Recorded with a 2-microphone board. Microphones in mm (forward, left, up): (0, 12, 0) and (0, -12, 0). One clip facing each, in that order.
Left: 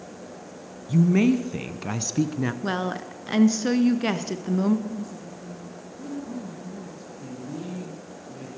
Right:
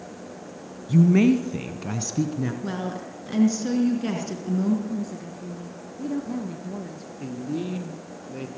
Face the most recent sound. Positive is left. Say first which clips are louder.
# right 6 dB
turn(degrees=-70)  # may be behind; listen again after turning